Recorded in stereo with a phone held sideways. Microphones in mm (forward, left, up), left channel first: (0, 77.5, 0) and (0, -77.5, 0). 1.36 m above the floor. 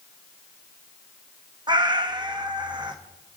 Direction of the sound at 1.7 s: 30° right (ahead or behind).